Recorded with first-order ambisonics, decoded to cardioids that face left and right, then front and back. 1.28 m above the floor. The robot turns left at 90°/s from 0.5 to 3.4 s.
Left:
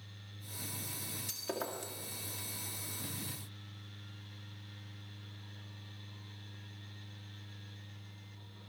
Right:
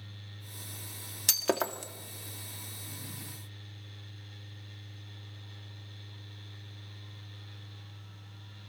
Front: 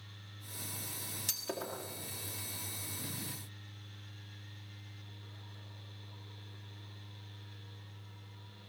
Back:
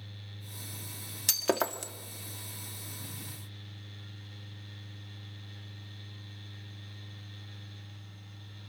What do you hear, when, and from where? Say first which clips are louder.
1.3 s breaking glass: right 11 dB, back 11 dB; 115° right, 1.5 m; by 1.9 s 175° right, 1.5 m